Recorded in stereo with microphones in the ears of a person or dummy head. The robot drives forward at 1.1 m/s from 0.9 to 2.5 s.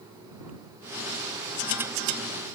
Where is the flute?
No flute in this recording.